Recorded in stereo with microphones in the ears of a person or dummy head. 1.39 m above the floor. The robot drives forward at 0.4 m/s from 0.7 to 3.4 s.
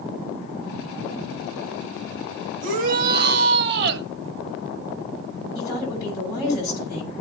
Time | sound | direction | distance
2.6 | a shout | 50° right (ahead or behind) | 1.5 m
5.5 | a woman speaking | 20° right (ahead or behind) | 8.5 m